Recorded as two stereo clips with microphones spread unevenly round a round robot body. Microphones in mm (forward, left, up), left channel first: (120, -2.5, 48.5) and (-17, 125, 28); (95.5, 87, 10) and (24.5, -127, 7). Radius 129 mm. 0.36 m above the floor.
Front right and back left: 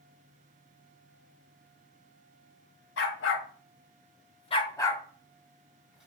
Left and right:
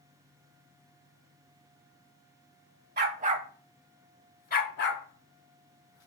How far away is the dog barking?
About 0.6 m.